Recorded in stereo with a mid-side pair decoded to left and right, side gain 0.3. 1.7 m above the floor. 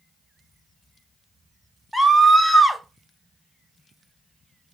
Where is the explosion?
I don't hear an explosion.